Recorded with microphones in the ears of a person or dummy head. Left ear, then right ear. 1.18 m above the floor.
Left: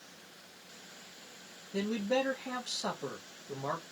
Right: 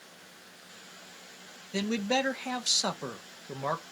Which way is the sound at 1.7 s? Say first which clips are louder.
Right 3 dB; 70° right (ahead or behind).